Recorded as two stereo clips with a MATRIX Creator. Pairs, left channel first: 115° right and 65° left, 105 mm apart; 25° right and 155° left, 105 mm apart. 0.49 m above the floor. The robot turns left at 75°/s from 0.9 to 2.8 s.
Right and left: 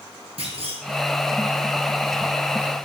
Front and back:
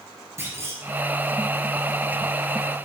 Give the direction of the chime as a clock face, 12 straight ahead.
No chime in this recording.